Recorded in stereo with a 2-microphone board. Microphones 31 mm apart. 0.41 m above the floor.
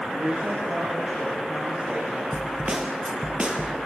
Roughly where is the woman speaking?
Right.